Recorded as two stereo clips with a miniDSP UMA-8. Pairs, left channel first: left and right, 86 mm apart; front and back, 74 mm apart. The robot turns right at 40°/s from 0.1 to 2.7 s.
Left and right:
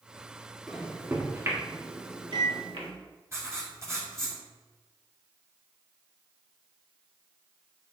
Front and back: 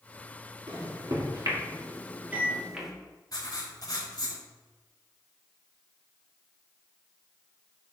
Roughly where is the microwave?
Behind.